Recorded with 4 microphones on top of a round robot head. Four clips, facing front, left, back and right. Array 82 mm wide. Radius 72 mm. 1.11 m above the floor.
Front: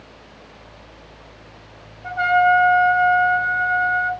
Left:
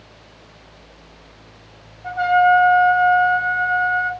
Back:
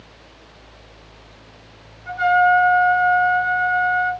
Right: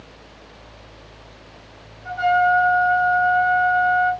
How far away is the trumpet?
About 3 m.